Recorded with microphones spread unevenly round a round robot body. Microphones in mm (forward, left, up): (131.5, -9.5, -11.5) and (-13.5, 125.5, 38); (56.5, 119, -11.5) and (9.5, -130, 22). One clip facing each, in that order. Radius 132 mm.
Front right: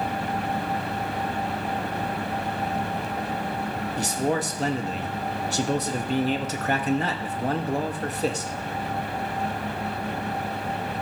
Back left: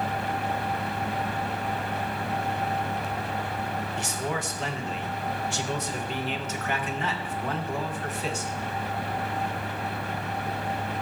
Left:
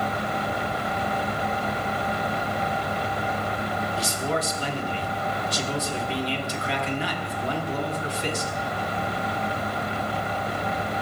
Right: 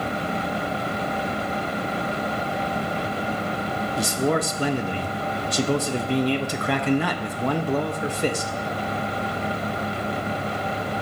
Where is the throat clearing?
No throat clearing in this recording.